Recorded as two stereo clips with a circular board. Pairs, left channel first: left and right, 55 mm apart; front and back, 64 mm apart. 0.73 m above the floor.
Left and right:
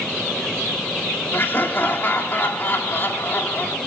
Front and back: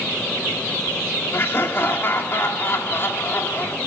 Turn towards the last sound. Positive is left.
turn(degrees=45)